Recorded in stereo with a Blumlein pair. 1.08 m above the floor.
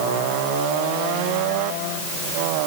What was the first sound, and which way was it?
Only background noise.